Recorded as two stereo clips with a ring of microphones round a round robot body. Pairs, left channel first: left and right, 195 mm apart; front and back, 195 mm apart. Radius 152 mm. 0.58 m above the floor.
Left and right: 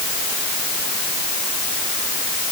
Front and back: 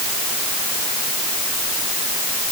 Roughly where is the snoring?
No snoring in this recording.